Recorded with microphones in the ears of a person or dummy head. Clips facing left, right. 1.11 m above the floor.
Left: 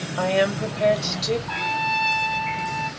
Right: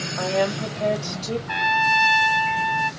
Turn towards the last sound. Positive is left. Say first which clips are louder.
# right 3 dB
turn(degrees=-25)  # may be behind; listen again after turning